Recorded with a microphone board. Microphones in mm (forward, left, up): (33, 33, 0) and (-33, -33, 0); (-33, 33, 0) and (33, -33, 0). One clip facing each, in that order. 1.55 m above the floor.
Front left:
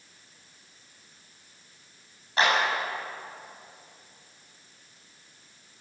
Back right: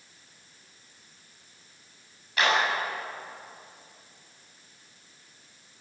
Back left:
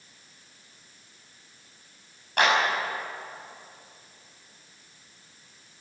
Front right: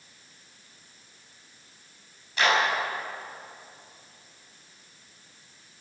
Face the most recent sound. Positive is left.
turn(degrees=100)